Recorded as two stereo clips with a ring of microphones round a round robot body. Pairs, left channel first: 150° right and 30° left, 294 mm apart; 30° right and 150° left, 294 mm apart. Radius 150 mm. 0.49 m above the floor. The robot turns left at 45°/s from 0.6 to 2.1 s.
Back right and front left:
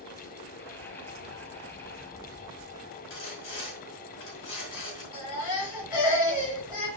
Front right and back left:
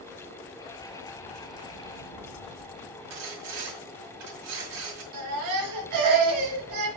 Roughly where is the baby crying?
Behind.